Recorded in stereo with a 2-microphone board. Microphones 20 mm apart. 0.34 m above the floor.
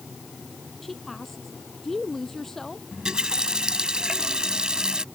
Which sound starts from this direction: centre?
A woman speaking, at 0.8 s.